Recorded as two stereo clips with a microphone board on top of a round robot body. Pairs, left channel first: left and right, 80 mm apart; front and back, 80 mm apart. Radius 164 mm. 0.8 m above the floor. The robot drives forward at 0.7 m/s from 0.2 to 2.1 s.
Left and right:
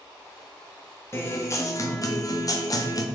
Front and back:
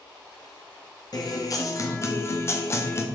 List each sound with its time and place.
1.1 s a guitar: 35° left, 1.9 m; by 3.0 s 55° left, 1.5 m